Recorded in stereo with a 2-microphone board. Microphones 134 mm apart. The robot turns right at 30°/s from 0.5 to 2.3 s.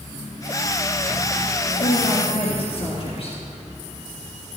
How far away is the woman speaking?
About 3 m.